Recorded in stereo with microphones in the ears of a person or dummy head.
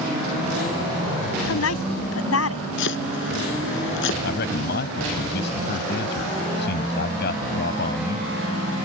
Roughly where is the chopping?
Left.